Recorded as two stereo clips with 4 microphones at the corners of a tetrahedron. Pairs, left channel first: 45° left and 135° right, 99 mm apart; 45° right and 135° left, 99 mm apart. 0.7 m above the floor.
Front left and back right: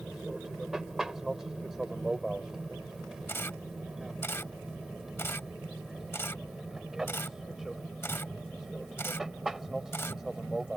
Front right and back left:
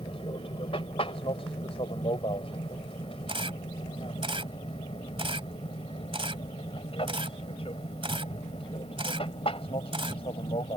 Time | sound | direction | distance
0.0 | an aircraft | 50° right | ?
3.3 | a camera shutter | 110° left | ?